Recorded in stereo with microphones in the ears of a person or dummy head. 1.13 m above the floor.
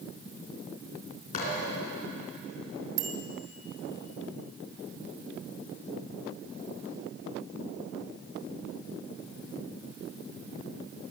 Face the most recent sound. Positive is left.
turn(degrees=-65)  # may be behind; listen again after turning